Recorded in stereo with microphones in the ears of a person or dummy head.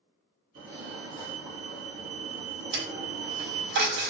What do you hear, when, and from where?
0.6 s a fire alarm: 65° right (ahead or behind), 3.5 m
2.7 s a dropped coin: 50° right (ahead or behind), 2.0 m